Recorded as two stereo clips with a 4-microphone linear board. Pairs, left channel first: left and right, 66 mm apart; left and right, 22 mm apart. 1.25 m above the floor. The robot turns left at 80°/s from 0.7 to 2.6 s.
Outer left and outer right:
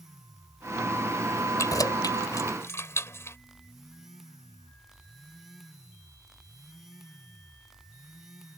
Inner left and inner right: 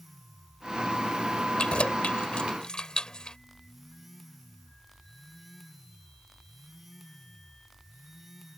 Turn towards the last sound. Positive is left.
turn(degrees=45)  # may be behind; listen again after turning